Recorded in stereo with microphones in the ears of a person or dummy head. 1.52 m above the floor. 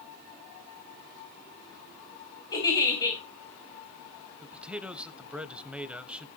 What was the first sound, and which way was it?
A giggle, 20° left (ahead or behind).